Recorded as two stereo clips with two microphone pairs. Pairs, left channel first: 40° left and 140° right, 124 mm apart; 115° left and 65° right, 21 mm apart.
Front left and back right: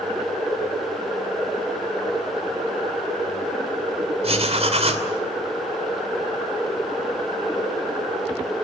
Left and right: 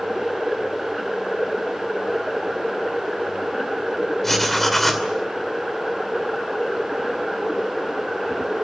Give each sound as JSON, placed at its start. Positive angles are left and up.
{"t": 4.2, "sound": "writing", "azimuth_deg": -170, "distance_m": 2.5}